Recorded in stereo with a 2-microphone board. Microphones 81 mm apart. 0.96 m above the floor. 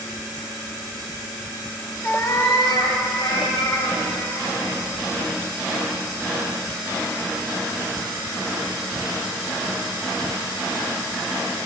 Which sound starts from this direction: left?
A cat meowing, at 2.0 s.